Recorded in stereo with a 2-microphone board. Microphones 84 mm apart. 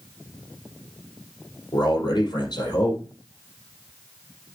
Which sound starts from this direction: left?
A man speaking, at 1.7 s.